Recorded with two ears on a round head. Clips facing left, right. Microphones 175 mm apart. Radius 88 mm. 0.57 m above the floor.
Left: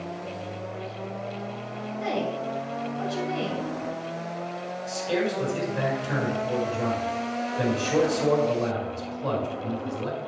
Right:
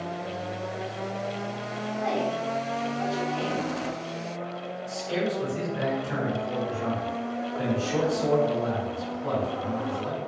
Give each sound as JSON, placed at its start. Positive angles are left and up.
{"t": 2.0, "sound": "a woman speaking", "side_deg": 40, "distance_m": 2.5}
{"t": 4.9, "sound": "a man speaking", "side_deg": 75, "distance_m": 4.5}